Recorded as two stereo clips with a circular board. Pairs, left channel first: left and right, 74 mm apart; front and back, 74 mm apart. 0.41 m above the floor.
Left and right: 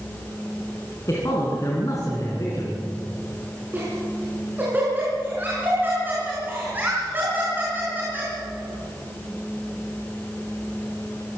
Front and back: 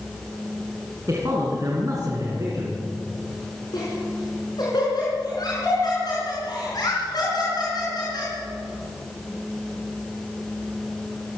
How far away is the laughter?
About 5 m.